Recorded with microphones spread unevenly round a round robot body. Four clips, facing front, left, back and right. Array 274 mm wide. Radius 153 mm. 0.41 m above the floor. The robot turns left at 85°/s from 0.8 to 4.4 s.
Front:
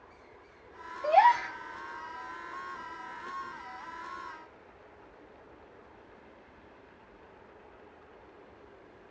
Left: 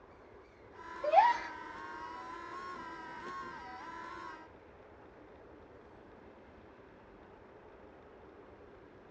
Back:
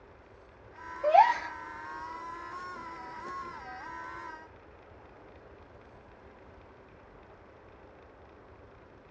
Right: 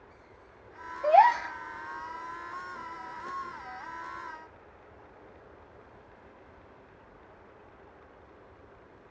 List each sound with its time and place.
1.0 s a gasp: 160° right, 1.6 m; by 1.6 s 155° left, 1.6 m